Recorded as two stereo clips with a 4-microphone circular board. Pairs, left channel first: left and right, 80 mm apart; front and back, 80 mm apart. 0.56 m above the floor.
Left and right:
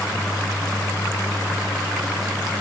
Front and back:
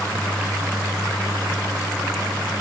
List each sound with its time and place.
Only background noise.